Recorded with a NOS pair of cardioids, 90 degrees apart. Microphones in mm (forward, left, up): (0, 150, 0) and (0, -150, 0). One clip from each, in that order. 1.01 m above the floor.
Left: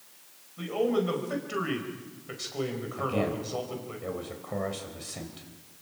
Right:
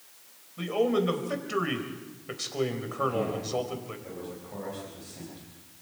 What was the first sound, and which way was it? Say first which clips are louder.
A man speaking: right 1 dB; 25° right.